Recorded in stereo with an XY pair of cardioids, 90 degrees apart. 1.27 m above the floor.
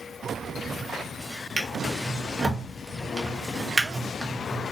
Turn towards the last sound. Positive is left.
turn(degrees=-20)